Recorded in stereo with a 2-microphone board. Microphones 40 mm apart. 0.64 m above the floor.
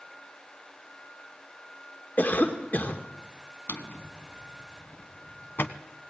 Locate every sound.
2.2 s a cough: 45° left (ahead or behind), 2 m
3.7 s a drawer: 65° left (ahead or behind), 1.3 m